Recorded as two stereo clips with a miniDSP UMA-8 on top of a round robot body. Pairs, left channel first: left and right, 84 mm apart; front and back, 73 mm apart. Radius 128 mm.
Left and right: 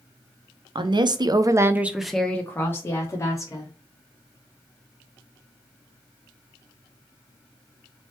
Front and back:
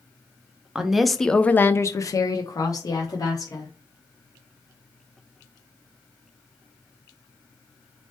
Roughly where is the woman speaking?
Right.